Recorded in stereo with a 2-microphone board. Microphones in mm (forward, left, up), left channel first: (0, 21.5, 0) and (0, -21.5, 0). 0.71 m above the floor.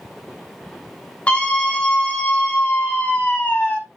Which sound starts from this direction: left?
A scream, at 1.3 s.